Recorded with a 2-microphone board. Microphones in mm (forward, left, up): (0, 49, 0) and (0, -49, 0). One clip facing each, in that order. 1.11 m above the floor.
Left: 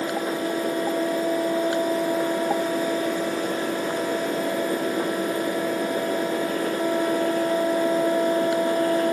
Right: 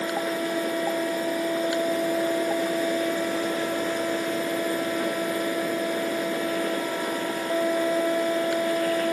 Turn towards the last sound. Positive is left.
No sound to turn to.